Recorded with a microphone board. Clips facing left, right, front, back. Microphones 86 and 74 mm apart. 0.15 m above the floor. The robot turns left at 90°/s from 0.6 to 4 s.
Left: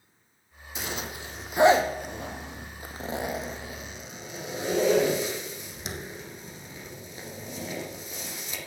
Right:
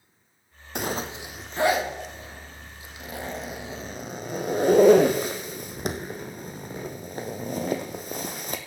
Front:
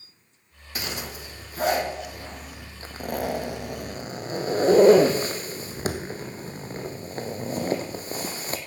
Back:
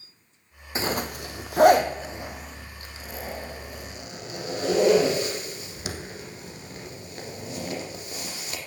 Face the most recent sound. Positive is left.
turn(degrees=-50)